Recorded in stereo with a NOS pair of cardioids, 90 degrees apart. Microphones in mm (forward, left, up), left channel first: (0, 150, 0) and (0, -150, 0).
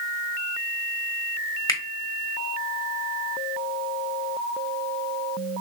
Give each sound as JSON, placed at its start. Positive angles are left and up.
{"t": 1.7, "sound": "a finger snap", "azimuth_deg": 10, "distance_m": 1.0}